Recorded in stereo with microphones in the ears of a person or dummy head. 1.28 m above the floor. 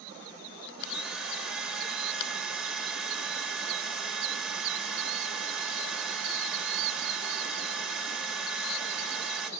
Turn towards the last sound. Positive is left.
turn(degrees=0)  # may be behind; listen again after turning